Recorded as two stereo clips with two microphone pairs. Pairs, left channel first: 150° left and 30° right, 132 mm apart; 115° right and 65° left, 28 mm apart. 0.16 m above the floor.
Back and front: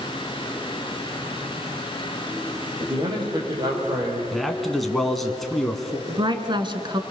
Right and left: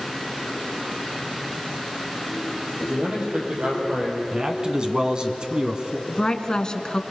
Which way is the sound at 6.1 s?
60° right.